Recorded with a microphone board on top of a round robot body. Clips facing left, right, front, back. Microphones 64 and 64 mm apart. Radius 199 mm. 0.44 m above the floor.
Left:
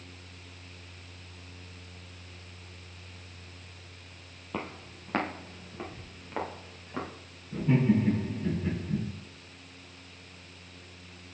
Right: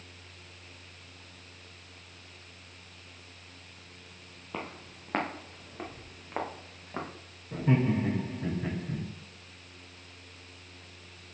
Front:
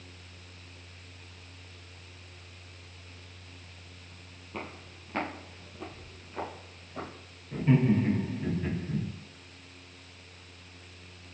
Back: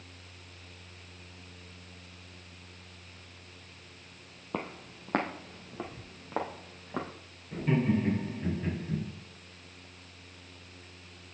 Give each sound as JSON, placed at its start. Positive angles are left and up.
{"t": 4.5, "sound": "footsteps", "azimuth_deg": 180, "distance_m": 0.9}
{"t": 7.5, "sound": "laughter", "azimuth_deg": -90, "distance_m": 3.0}